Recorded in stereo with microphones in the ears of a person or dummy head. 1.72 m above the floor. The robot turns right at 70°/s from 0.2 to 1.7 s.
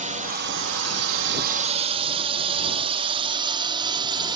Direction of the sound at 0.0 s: 30° right (ahead or behind).